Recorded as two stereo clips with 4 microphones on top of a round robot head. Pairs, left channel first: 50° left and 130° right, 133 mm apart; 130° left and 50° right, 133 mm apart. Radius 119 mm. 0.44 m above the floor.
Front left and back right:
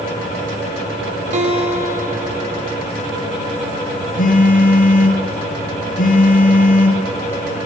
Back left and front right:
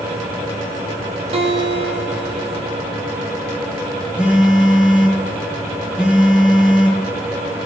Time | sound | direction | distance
1.3 | a guitar | 95° right | 5.5 m
4.2 | a phone buzzing | 35° left | 9.5 m